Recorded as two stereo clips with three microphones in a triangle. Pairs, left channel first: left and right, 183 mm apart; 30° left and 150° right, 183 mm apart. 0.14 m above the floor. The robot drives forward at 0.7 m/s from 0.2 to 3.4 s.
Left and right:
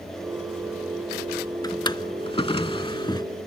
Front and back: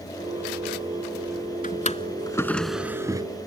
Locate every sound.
1.6 s a drawer: 30° left; by 3.3 s 150° left